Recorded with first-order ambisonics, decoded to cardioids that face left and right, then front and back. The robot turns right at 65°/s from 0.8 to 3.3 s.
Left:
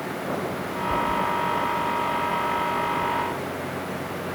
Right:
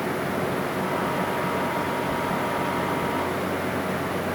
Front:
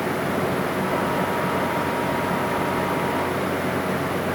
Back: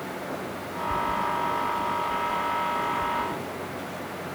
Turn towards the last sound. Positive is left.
No sound to turn to.